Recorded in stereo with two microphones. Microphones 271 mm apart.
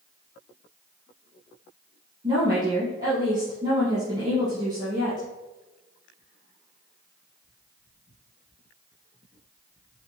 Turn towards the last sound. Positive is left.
turn(degrees=-25)  # may be behind; listen again after turning